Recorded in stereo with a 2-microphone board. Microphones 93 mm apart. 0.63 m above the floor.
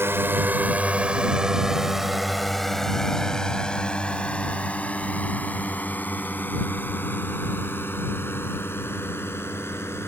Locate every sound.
0.0 s a drone: 25° right (ahead or behind); by 10.1 s 25° left (ahead or behind)